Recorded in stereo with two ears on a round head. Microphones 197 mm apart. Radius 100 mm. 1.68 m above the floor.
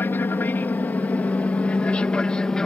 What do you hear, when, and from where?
0.0 s an aircraft: 10° left (ahead or behind); by 2.7 s 5° left (ahead or behind)